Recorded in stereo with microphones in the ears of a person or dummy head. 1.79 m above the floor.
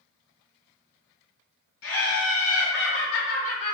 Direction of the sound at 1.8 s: 80° left.